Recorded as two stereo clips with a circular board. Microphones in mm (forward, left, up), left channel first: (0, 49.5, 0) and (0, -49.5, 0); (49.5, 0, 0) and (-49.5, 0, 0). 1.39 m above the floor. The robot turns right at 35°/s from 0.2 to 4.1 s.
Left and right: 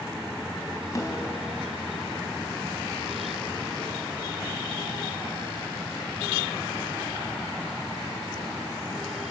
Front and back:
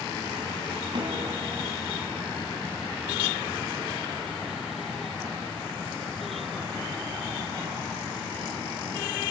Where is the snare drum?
145° left, 4 m; by 1.4 s 160° left, 4 m.